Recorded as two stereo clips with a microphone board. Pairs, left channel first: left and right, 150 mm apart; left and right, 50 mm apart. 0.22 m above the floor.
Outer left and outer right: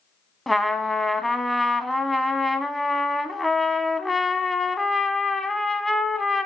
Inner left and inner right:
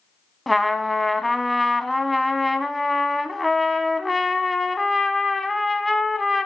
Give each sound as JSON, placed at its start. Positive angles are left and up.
{"t": 0.5, "sound": "a trumpet", "side_deg": 0, "distance_m": 0.7}